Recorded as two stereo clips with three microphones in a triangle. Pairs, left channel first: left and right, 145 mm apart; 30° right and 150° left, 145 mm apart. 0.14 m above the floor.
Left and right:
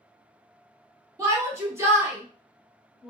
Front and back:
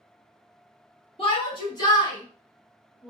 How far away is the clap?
No clap in this recording.